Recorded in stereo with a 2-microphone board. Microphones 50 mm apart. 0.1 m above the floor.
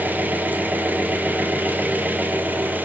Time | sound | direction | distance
0.0 | an engine running | 35° right (ahead or behind) | 0.8 m